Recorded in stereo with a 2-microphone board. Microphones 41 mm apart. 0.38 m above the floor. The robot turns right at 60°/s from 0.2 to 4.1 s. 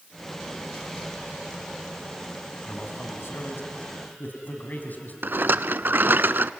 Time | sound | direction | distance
2.6 | a man speaking | 40° left | 3 m
5.2 | a rattle | 60° right (ahead or behind) | 0.5 m